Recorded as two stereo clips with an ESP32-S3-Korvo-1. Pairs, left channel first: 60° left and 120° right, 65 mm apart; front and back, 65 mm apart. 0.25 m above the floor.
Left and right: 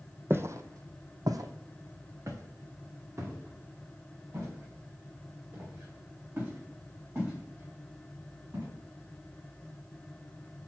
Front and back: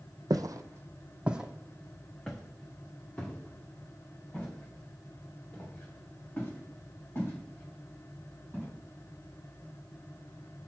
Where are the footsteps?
170° right, 0.7 m; by 8.7 s 65° right, 6.5 m.